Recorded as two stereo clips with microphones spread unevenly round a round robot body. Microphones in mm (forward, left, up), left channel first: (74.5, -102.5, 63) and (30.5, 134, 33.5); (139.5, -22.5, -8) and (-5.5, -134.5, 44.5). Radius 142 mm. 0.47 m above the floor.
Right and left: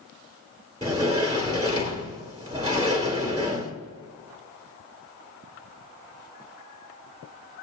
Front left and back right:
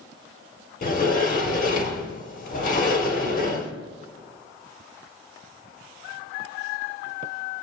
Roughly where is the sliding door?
Ahead left.